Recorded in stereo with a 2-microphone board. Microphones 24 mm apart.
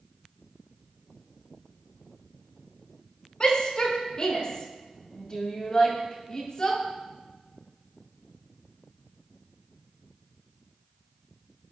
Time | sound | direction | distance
3.4 | a shout | 35° left (ahead or behind) | 7 m